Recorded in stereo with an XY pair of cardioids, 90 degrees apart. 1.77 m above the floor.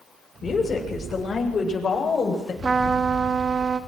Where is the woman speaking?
40° left, 6.5 m.